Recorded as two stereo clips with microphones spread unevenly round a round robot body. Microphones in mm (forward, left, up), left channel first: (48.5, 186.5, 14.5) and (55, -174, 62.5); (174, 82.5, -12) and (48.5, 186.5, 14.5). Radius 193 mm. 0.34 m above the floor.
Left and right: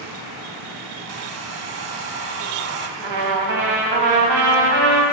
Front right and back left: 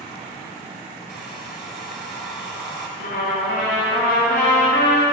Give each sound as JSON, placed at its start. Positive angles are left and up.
{"t": 1.1, "sound": "a hair dryer", "azimuth_deg": -145, "distance_m": 0.6}
{"t": 3.0, "sound": "a trumpet", "azimuth_deg": -85, "distance_m": 2.5}